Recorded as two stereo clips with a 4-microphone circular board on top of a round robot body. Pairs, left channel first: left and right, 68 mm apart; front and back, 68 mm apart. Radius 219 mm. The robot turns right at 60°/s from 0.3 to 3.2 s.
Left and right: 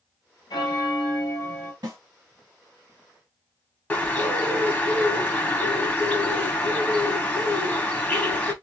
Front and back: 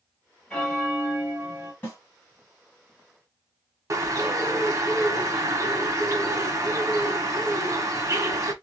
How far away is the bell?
About 1.4 m.